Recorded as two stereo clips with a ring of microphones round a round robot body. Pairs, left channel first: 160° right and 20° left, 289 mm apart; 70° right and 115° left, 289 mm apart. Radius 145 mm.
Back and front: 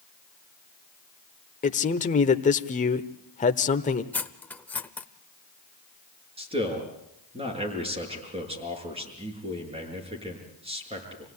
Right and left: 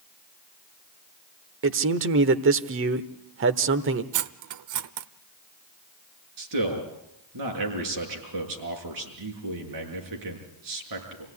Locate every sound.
1.6 s a man speaking: 145° left, 1.1 m
4.1 s cutlery clinking: 120° left, 0.8 m
6.4 s a man speaking: 95° left, 6 m